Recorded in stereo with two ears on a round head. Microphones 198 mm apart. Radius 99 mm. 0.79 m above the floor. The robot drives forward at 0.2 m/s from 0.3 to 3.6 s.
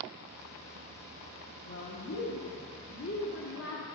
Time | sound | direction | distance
1.6 | a woman speaking | 65° left (ahead or behind) | 1.3 m